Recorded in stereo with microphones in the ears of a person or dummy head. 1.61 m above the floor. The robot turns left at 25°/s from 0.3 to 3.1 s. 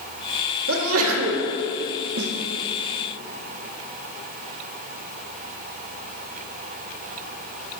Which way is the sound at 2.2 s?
75° right (ahead or behind).